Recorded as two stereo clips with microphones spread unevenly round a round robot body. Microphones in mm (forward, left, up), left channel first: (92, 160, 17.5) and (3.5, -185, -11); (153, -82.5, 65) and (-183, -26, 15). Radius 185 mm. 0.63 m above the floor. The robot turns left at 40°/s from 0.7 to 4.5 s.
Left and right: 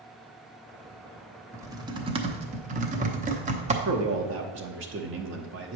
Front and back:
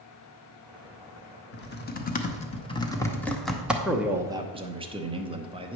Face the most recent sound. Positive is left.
turn(degrees=-135)